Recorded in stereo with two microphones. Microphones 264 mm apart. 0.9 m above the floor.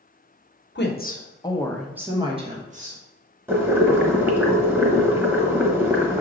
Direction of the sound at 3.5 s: 10° right (ahead or behind).